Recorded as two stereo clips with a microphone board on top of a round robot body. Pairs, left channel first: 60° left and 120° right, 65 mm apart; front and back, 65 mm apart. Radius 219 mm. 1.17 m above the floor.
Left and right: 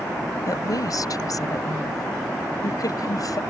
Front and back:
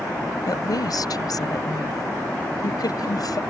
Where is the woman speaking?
25° left.